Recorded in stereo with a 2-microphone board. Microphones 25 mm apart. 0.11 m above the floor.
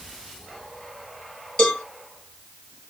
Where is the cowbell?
35° left (ahead or behind), 2.5 m.